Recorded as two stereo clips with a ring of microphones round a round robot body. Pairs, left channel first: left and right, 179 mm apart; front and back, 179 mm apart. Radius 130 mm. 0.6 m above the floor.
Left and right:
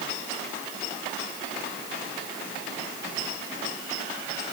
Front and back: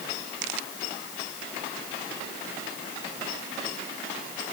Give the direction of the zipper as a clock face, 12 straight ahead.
No zipper in this recording.